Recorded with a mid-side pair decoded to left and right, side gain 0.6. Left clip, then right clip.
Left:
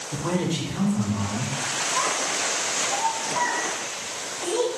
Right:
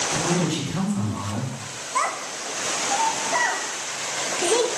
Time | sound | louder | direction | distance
0.1 | a man speaking | right 3 dB | 40° right | 4.5 m
1.9 | a child speaking | right 3 dB | 65° right | 1.5 m